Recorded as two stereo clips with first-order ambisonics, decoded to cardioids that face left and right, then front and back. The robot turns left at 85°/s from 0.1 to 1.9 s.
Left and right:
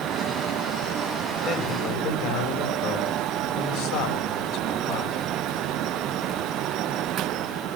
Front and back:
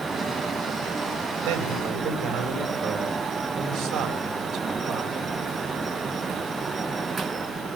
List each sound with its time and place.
1.4 s a man speaking: 150° left, 6 m; by 5.3 s 110° left, 6 m